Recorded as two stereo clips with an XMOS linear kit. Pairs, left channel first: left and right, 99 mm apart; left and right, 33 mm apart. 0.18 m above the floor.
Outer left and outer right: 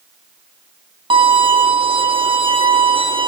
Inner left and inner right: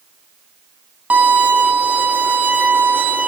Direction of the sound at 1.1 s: 55° right (ahead or behind).